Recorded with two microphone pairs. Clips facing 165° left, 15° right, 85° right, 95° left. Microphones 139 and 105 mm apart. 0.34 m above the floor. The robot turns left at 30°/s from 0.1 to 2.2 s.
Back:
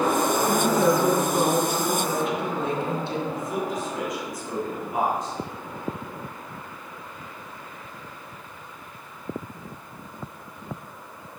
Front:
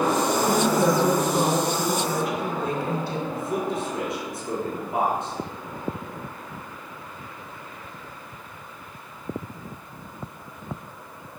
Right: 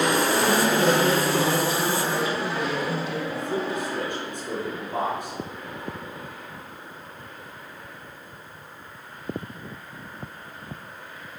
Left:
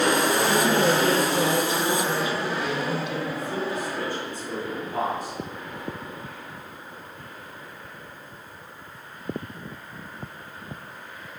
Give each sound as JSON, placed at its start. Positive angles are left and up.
{"t": 0.5, "sound": "a woman speaking", "azimuth_deg": -80, "distance_m": 2.5}
{"t": 3.3, "sound": "a man speaking", "azimuth_deg": -75, "distance_m": 4.5}